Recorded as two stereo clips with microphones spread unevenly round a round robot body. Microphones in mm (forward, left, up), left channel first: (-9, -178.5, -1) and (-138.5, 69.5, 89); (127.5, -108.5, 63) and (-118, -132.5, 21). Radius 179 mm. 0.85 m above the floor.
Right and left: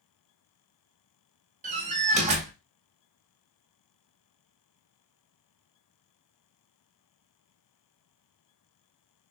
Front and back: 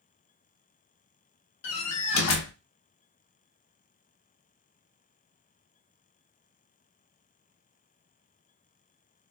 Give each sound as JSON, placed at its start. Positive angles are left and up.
{"t": 1.6, "sound": "a door slam", "azimuth_deg": 45, "distance_m": 1.0}